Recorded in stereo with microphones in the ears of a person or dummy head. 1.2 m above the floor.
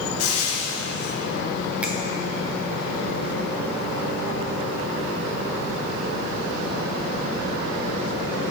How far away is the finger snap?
About 0.6 m.